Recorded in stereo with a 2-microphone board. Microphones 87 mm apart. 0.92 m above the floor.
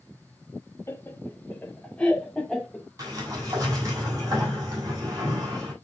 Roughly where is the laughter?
Left.